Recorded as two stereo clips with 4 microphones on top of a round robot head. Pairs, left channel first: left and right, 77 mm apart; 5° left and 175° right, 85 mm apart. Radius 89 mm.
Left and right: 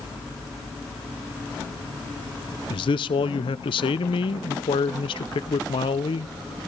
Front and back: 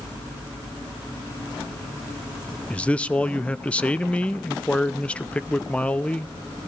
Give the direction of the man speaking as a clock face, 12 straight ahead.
9 o'clock.